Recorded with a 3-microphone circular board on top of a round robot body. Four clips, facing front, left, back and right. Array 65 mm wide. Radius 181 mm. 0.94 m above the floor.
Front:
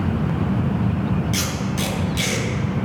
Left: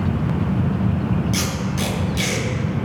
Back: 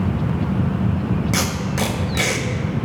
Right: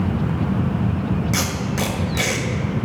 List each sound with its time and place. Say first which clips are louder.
1.3 s tape being pulled: right 1 dB, back 2 dB; 145° right, 1.5 m